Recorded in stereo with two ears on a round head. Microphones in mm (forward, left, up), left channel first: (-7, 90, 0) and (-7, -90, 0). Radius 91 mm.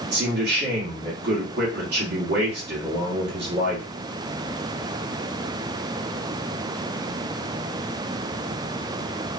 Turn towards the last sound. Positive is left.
turn(degrees=-50)  # may be behind; listen again after turning